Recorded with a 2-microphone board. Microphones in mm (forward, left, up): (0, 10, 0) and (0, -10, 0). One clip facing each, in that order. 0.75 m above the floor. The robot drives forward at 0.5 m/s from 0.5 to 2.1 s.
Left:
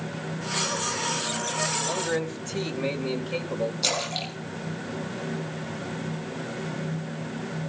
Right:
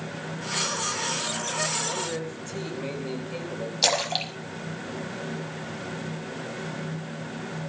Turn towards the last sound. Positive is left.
turn(degrees=-80)